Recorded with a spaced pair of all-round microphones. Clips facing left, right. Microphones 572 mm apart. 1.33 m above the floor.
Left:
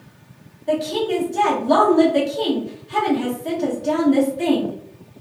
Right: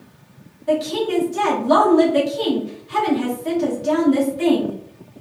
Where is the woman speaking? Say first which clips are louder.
Right 1 dB; 30° right (ahead or behind), 1.6 m.